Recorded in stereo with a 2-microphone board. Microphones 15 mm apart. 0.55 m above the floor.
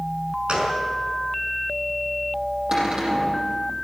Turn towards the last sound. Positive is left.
turn(degrees=-55)  # may be behind; listen again after turning